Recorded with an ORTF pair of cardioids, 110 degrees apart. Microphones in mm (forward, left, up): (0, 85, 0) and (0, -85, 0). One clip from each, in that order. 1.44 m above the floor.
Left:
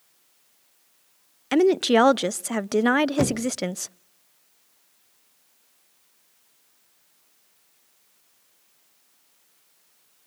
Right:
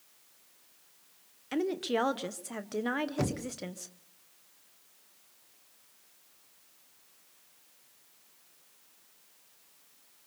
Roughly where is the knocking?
Ahead left.